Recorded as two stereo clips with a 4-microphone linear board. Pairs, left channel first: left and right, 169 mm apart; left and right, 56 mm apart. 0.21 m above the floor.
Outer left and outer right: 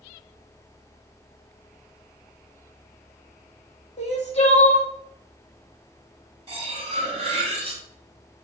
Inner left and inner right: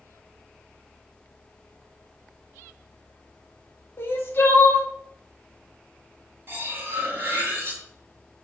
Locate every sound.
4.0 s crying: 45° left (ahead or behind), 0.8 m
6.5 s cutlery clinking: 40° right (ahead or behind), 1.0 m